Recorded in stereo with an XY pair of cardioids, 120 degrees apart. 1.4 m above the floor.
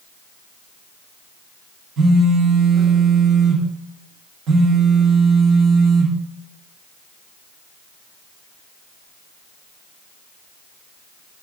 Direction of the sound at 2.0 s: 65° right.